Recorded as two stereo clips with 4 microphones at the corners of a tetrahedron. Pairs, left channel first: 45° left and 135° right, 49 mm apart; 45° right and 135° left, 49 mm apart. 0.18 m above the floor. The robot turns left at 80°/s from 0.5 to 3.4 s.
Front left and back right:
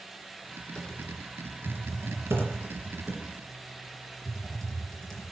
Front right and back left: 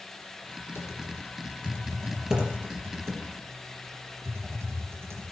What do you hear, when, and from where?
0.8 s typing on a keyboard: 30° right, 3.5 m; by 5.2 s 120° left, 3.5 m